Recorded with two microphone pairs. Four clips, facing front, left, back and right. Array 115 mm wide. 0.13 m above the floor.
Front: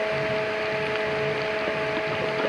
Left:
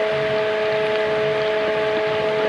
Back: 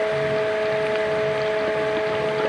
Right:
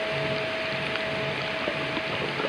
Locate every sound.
Only background noise.